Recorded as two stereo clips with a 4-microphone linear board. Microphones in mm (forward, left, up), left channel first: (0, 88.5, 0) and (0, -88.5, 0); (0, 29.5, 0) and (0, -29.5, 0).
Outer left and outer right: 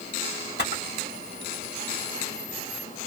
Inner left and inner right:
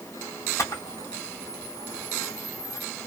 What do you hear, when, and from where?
0.6 s a camera shutter: 75° left (ahead or behind), 1.6 m